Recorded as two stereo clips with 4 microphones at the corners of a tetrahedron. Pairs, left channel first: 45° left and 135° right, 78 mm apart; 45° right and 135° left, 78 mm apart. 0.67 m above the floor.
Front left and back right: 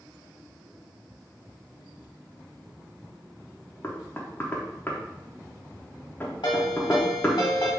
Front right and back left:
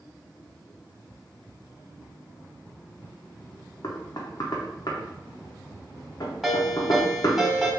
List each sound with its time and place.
3.8 s knocking: 15° right, 0.6 m
6.4 s a ringtone: 50° left, 1.5 m